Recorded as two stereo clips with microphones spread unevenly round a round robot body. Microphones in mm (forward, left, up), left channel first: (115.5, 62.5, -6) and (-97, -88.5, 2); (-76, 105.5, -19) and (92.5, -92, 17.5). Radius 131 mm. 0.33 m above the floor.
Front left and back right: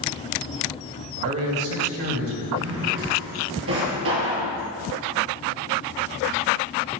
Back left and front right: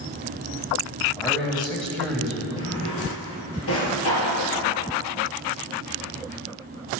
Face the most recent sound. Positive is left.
turn(degrees=170)